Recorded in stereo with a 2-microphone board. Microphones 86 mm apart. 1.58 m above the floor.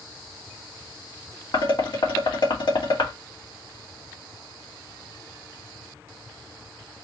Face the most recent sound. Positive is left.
turn(degrees=70)  # may be behind; listen again after turning